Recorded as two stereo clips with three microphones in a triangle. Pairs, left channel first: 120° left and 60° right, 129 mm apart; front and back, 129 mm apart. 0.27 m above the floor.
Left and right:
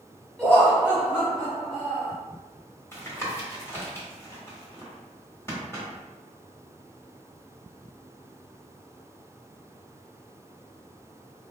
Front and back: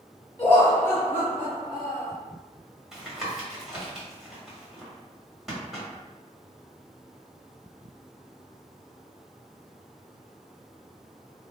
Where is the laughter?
55° left, 0.9 m; by 2.1 s 75° left, 2 m.